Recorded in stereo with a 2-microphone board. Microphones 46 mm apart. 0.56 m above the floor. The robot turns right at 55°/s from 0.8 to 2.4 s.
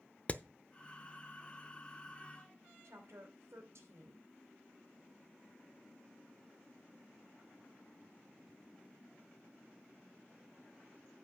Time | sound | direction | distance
0.3 | hammering | 30° left (ahead or behind) | 0.6 m
2.8 | a woman speaking | 75° right (ahead or behind) | 3 m